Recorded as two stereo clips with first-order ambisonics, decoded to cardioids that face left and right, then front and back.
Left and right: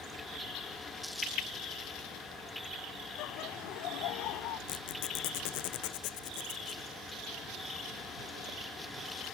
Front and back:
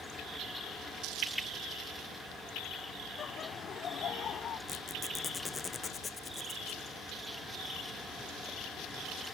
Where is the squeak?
75° left.